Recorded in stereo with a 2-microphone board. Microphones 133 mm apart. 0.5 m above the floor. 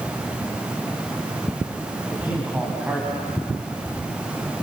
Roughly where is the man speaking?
Centre.